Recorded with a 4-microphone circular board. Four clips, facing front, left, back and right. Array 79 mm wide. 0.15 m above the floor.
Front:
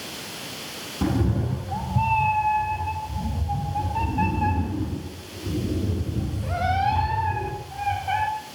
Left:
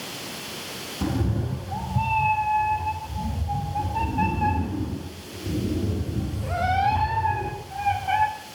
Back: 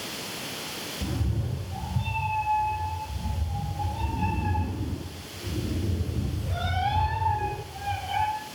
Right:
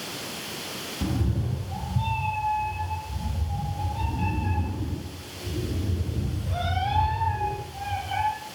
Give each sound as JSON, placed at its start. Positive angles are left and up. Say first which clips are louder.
{"t": 1.0, "sound": "a cat meowing", "louder": "left 3 dB, front 10 dB", "azimuth_deg": 20, "distance_m": 4.5}